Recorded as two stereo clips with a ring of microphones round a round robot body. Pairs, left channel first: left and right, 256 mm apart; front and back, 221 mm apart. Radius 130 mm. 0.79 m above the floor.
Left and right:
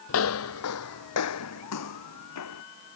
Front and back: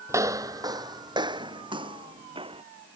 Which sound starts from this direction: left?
Footsteps, at 0.1 s.